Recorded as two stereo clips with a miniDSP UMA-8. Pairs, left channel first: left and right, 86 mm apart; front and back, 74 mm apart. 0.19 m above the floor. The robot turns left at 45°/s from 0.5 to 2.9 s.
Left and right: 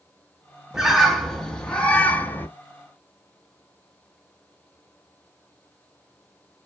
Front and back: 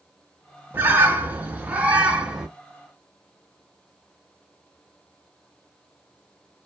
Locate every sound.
0.7 s a bird: 170° right, 0.6 m; by 2.5 s 115° left, 0.6 m